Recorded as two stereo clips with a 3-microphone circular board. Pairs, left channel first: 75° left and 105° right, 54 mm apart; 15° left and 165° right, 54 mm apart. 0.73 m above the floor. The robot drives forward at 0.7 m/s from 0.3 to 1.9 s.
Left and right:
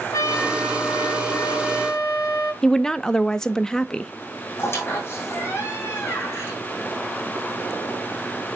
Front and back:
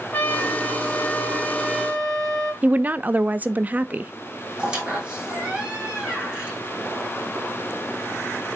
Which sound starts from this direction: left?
A trumpet, at 0.1 s.